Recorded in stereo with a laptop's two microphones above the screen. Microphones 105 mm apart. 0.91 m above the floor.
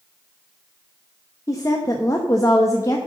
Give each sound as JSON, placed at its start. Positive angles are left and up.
{"t": 1.5, "sound": "a woman speaking", "side_deg": 30, "distance_m": 0.9}